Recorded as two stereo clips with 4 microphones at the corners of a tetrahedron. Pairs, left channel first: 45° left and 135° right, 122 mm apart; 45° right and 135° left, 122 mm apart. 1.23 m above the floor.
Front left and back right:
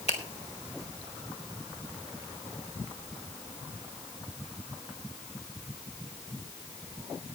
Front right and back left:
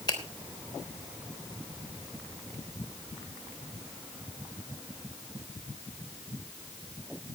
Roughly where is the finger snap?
Ahead.